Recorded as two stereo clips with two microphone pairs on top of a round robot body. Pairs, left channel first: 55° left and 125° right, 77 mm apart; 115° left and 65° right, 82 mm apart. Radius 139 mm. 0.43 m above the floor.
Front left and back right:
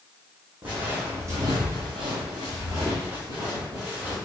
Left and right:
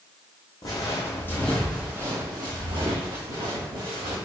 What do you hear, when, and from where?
0.6 s footsteps: 165° left, 1.5 m; by 4.2 s 60° right, 2.5 m